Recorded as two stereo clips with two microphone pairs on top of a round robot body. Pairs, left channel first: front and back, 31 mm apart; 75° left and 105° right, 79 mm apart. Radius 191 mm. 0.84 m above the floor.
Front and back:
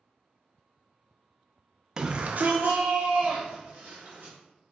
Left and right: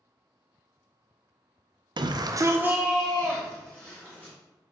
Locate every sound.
2.0 s a shout: 110° right, 0.5 m; by 4.3 s 145° left, 1.5 m